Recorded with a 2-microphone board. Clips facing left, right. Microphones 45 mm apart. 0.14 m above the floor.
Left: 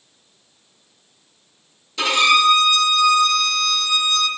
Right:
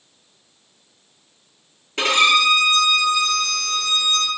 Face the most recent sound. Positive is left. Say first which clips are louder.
# left 1 dB
turn(degrees=-50)  # may be behind; listen again after turning